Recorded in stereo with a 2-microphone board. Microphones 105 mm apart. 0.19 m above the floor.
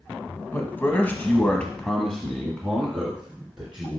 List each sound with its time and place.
0.5 s a man speaking: 20° left (ahead or behind), 1.0 m; by 4.0 s 10° right (ahead or behind), 2 m